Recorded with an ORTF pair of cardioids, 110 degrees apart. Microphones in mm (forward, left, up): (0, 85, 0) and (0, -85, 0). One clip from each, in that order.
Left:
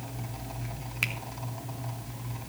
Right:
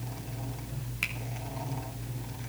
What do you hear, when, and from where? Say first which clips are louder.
1.0 s a finger snap: left 3 dB; 15° left, 3 m